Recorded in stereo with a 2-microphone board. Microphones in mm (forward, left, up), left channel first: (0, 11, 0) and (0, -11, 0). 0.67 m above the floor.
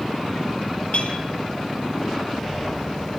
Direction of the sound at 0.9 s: 70° left (ahead or behind).